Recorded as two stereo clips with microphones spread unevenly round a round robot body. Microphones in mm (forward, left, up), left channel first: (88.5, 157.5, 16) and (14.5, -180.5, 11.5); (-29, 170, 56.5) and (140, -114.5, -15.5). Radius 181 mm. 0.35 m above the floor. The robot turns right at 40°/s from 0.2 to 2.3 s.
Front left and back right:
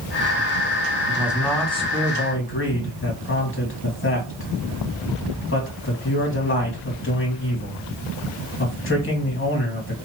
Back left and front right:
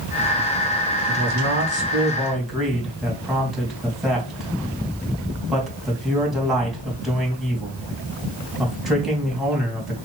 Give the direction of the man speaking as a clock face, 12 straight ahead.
1 o'clock.